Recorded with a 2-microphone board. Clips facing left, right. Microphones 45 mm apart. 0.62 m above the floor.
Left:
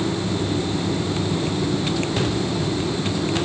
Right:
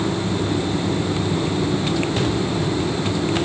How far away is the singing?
I don't hear singing.